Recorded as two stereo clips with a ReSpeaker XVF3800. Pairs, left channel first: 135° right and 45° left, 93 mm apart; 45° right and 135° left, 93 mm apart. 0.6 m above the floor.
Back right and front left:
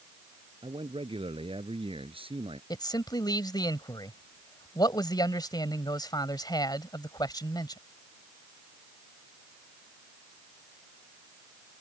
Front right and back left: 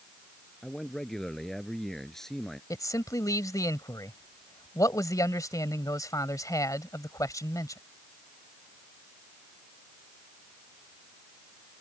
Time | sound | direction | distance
0.6 | a man speaking | 40° left | ?
2.7 | a man speaking | 95° right | ?